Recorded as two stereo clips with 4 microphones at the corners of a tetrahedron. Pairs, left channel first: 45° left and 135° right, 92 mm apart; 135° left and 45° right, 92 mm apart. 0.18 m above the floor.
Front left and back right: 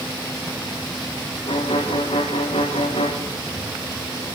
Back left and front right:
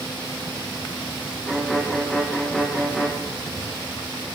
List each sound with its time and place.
1.5 s a violin: 50° left, 4.5 m